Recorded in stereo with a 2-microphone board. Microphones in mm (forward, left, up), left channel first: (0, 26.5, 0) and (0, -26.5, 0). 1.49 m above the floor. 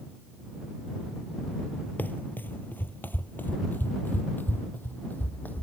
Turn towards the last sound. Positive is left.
turn(degrees=40)  # may be behind; listen again after turning